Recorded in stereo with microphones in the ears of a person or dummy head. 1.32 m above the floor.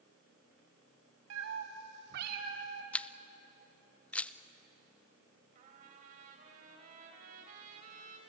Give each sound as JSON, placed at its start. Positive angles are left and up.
{"t": 1.3, "sound": "a cat meowing", "side_deg": -75, "distance_m": 2.5}
{"t": 2.9, "sound": "a camera shutter", "side_deg": 10, "distance_m": 0.6}
{"t": 5.5, "sound": "a trumpet", "side_deg": -45, "distance_m": 3.5}